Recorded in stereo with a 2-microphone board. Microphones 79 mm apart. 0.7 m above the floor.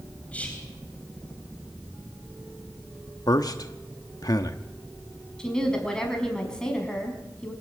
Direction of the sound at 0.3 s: 15° left (ahead or behind).